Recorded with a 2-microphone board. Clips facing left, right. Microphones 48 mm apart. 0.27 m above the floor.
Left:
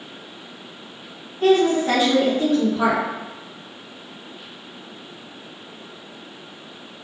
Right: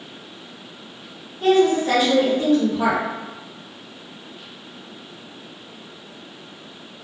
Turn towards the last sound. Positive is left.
turn(degrees=40)  # may be behind; listen again after turning